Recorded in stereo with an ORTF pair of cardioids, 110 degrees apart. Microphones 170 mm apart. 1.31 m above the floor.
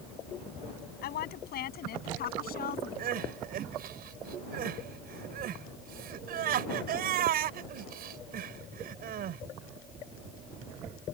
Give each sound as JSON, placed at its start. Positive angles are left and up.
{"t": 1.0, "sound": "a woman speaking", "azimuth_deg": 65}
{"t": 3.0, "sound": "crying", "azimuth_deg": -60}